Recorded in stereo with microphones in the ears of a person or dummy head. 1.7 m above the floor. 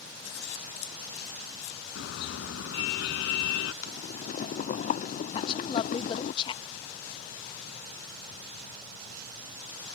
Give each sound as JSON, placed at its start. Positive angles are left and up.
{"t": 0.2, "sound": "scissors", "side_deg": 70}
{"t": 1.9, "sound": "a car horn", "side_deg": 75}
{"t": 3.8, "sound": "boiling", "side_deg": 45}
{"t": 5.3, "sound": "a woman speaking", "side_deg": 30}